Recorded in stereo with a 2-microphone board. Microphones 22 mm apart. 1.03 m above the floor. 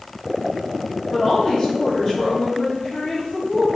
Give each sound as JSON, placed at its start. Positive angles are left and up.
{"t": 1.1, "sound": "a woman speaking", "side_deg": 35, "distance_m": 1.4}